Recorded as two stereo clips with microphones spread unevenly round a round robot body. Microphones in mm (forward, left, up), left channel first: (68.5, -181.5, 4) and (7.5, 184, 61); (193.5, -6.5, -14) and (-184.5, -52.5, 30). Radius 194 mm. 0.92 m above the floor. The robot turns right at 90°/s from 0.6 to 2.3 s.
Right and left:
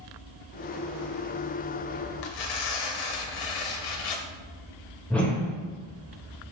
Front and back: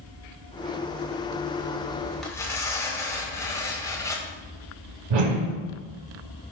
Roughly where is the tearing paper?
Right.